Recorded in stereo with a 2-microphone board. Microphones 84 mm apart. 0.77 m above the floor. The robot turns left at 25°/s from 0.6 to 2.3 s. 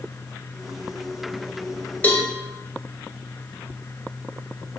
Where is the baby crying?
No baby crying in this recording.